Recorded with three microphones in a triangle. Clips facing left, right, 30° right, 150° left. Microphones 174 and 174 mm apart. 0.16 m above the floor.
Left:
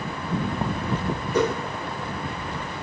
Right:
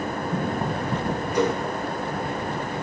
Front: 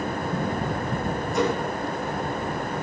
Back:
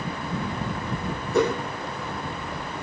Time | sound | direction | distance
1.3 | a whoosh | 130° left | 4 m